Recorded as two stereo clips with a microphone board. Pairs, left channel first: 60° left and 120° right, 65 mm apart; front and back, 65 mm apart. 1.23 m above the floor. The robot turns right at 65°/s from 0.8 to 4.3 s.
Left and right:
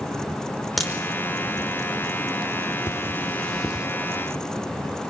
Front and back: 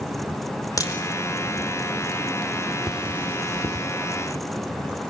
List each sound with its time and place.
0.8 s a crack: 30° right, 4.5 m; by 0.9 s 25° right, 4.5 m
2.9 s cutlery clinking: 95° left, 2.0 m; by 3.9 s 160° left, 2.0 m